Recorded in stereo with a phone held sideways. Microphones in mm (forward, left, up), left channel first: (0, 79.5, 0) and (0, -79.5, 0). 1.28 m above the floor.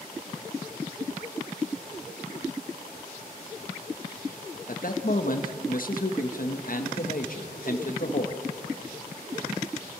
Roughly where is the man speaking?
Left.